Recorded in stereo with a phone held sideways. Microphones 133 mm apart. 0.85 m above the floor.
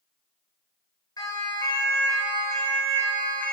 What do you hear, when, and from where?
1.2 s a siren: 30° left (ahead or behind), 4.5 m; by 3.5 s 10° left (ahead or behind), 4 m